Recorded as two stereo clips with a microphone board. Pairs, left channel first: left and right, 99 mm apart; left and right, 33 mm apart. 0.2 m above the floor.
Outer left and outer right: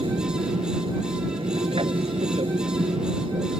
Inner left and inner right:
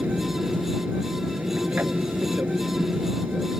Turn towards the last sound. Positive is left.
turn(degrees=-65)  # may be behind; listen again after turning